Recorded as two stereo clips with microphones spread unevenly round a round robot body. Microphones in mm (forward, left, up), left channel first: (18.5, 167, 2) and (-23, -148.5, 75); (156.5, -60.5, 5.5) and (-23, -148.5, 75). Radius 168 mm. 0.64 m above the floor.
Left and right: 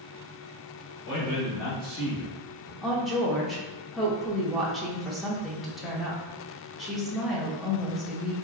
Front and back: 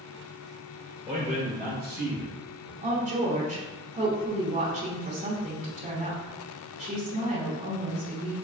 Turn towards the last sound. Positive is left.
turn(degrees=145)